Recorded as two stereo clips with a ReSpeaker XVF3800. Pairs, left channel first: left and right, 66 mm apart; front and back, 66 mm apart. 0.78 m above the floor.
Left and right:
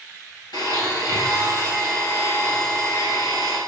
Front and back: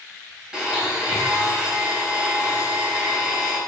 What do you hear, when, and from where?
0.5 s a blender: 100° left, 4 m